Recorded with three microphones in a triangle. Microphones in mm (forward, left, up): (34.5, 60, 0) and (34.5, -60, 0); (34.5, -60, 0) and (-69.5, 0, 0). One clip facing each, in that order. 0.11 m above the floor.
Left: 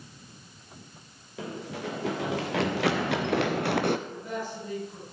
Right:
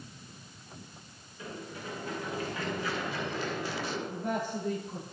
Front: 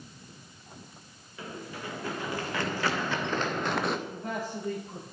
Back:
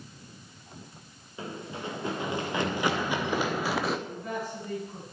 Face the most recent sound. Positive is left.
turn(degrees=-80)